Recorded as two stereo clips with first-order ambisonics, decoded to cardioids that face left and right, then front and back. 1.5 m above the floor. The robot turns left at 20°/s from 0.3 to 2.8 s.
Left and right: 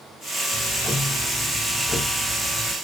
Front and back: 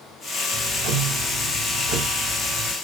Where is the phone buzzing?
No phone buzzing in this recording.